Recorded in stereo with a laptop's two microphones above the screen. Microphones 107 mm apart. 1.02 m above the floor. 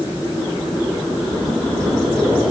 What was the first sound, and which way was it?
Only background noise.